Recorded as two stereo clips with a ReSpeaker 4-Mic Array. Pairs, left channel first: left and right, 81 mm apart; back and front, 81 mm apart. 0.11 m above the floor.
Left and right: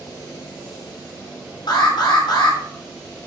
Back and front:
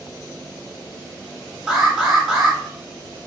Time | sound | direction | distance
1.7 | an alarm | 85° left | 3.5 m